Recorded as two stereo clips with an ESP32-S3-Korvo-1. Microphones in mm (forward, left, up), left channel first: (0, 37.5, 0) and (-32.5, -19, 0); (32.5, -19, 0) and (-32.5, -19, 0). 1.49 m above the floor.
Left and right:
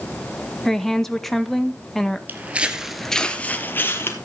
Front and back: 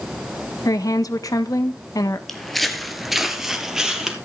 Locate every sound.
0.7 s a woman speaking: 25° right, 1.4 m
2.3 s footsteps: 85° right, 1.7 m; by 4.2 s 100° left, 2.5 m